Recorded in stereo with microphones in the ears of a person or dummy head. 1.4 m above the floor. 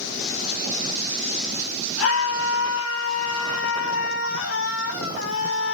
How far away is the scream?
About 4 m.